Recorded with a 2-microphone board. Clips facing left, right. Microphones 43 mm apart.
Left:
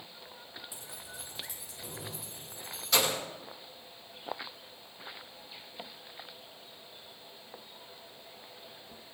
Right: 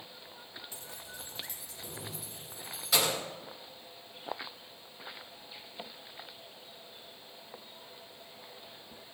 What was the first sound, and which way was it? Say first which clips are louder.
Keys jangling: even; 15° left (ahead or behind).